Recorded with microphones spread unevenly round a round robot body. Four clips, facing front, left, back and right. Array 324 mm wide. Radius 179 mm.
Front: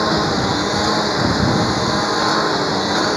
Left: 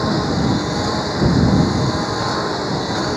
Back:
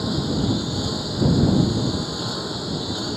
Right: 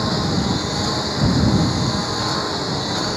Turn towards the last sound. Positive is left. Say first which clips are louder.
# left 3 dB, front 6 dB
turn(degrees=-5)